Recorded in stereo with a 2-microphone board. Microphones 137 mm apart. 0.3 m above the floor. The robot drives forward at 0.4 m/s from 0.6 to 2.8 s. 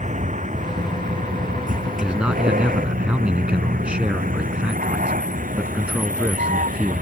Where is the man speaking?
10° right (ahead or behind).